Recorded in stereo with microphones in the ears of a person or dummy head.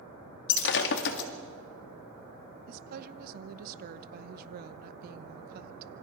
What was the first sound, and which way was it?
Breaking glass, 65° left (ahead or behind).